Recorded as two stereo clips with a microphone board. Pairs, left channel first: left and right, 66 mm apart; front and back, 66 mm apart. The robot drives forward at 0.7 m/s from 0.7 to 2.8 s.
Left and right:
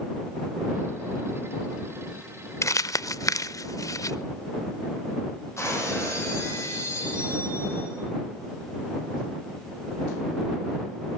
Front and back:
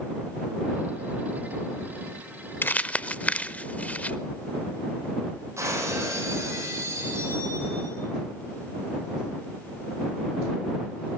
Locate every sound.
2.6 s crumpling: 50° left, 0.6 m; by 4.2 s 65° left, 0.6 m
5.6 s breaking glass: 135° left, 5.5 m